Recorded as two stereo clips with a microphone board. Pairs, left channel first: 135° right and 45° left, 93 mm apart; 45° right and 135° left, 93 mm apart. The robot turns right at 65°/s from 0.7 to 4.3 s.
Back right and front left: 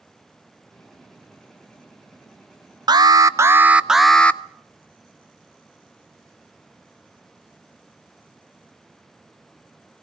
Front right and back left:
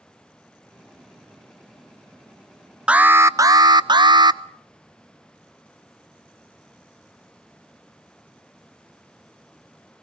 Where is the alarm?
60° left, 0.5 m; by 4.4 s 150° left, 0.5 m.